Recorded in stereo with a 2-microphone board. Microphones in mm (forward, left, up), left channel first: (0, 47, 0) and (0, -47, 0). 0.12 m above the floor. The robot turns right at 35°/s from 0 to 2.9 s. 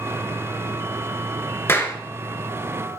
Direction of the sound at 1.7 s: 25° left (ahead or behind).